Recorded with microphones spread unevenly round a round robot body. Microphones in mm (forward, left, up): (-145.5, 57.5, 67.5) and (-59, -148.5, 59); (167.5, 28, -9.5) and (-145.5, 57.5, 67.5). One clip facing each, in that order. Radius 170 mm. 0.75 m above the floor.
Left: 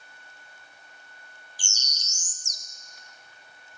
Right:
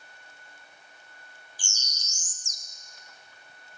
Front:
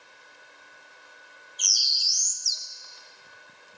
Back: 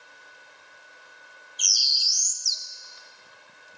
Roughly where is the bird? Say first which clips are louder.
Left 1 dB, even; behind left.